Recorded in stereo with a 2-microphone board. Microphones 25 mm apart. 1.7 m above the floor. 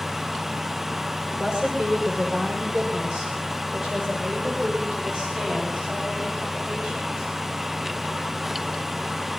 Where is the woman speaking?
45° right (ahead or behind), 7 m; by 7.3 s 55° right (ahead or behind), 10 m.